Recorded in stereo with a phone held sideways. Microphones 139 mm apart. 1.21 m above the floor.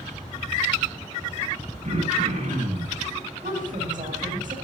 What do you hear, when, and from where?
1.8 s throat clearing: 65° right (ahead or behind), 6.5 m
3.4 s a woman speaking: 70° right (ahead or behind), 5.5 m